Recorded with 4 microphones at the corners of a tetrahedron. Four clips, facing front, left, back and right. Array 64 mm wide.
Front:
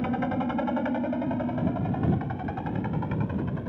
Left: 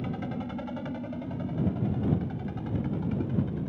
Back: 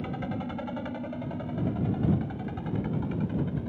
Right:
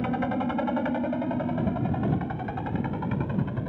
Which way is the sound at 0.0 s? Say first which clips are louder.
Right 7 dB, front 6 dB; 55° right.